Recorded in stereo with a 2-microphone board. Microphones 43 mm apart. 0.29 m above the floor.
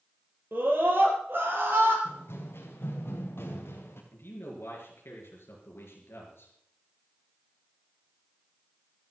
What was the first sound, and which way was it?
A scream, 60° right (ahead or behind).